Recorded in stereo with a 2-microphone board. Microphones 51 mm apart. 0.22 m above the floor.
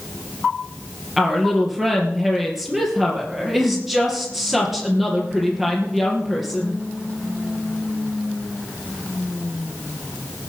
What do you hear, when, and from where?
1.2 s a woman speaking: 5° right (ahead or behind), 4 m